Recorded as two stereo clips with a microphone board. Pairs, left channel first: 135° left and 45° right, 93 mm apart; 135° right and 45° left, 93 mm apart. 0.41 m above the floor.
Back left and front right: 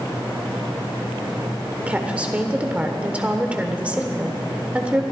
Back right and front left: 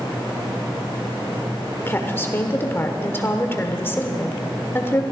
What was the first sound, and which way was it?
A woman speaking, 105° right.